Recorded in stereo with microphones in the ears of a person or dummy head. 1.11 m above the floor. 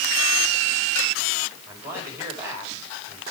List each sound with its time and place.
1.7 s a man speaking: 10° right (ahead or behind), 4 m